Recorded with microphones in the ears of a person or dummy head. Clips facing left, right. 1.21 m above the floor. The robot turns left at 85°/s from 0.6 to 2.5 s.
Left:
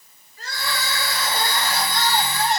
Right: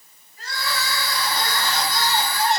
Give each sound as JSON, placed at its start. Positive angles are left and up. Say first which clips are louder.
{"t": 0.4, "sound": "crying", "louder": "right 1 dB", "azimuth_deg": 110, "distance_m": 4.5}